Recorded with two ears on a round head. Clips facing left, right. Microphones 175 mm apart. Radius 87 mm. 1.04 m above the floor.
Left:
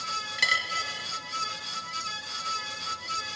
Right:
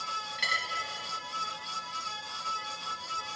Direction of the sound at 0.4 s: 60° left (ahead or behind).